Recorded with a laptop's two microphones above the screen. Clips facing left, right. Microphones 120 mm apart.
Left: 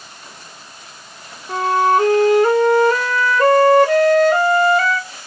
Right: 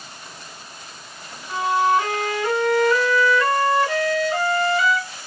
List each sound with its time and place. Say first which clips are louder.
1.5 s a flute: left 4 dB; 45° left (ahead or behind), 0.7 m